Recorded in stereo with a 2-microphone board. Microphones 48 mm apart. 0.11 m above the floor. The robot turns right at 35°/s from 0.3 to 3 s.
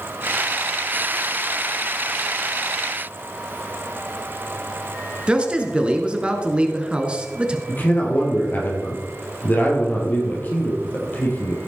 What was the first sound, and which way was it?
A man speaking, 20° right (ahead or behind).